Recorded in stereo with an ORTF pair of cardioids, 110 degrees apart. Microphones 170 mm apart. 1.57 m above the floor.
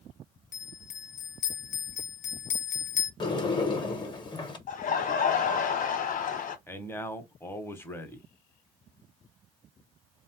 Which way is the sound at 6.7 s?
15° left.